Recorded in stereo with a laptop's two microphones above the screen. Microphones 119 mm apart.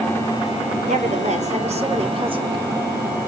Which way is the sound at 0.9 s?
80° right.